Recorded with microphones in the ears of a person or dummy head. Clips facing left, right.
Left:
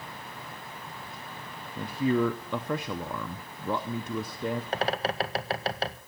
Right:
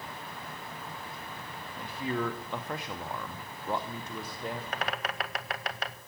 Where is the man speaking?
70° left (ahead or behind), 0.7 m.